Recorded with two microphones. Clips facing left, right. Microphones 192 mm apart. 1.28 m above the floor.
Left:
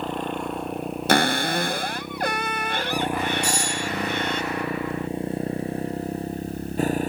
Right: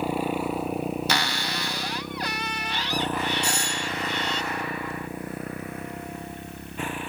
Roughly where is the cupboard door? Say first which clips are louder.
Left 8 dB; left.